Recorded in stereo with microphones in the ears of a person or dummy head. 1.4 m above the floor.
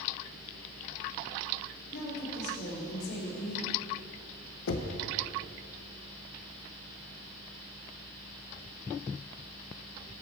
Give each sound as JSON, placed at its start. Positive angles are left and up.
{"t": 1.9, "sound": "a woman speaking", "side_deg": 55, "distance_m": 2.5}
{"t": 4.7, "sound": "knocking", "side_deg": 65, "distance_m": 0.8}